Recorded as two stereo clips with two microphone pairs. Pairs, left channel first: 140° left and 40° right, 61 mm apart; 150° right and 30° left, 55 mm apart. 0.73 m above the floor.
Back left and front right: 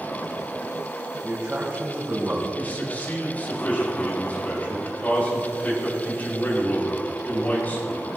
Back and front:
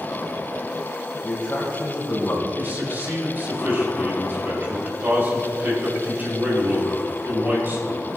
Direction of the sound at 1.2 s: 100° right.